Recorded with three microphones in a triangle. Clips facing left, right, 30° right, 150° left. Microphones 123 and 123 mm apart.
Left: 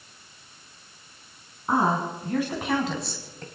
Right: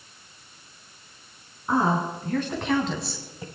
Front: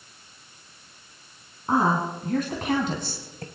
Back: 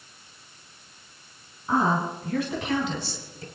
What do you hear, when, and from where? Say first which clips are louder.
1.7 s a woman speaking: even, front 1 dB; 20° left, 3 m; by 3.5 s 15° right, 1.7 m